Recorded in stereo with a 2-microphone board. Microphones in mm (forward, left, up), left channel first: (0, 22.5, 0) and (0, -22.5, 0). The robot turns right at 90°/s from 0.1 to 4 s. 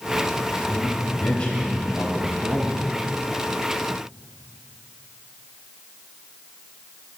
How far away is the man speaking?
About 5 m.